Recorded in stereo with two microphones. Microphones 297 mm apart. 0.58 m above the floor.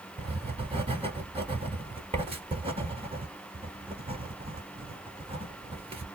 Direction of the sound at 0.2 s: 20° right (ahead or behind).